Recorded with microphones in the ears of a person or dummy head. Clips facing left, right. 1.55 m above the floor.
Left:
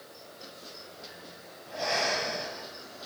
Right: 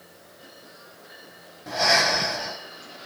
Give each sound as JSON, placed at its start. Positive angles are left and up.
{"t": 1.7, "sound": "breathing", "side_deg": -80, "distance_m": 6.5}